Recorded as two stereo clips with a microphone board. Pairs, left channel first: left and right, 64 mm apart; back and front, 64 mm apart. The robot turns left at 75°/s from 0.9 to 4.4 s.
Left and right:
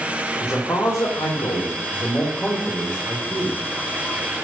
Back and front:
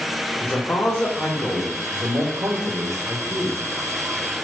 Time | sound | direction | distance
0.4 | a man speaking | 120° left | 1.6 m